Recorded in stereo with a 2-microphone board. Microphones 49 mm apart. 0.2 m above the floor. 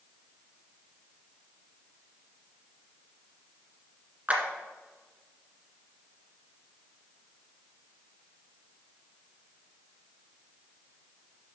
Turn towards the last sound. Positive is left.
turn(degrees=-30)  # may be behind; listen again after turning